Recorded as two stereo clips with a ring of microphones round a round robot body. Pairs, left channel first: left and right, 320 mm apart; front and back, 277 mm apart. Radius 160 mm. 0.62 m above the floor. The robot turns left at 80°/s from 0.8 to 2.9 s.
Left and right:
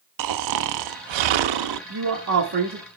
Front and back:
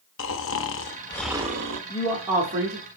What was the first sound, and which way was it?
Snoring, 55° right.